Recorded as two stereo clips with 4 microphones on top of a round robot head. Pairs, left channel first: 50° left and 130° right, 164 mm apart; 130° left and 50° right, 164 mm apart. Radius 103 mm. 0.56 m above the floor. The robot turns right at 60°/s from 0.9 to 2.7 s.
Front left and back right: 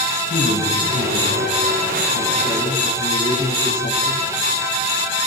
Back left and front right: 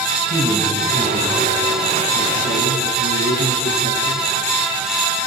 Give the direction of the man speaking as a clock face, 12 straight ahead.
12 o'clock.